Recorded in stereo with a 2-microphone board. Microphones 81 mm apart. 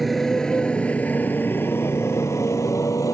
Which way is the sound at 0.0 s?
Centre (ahead or behind).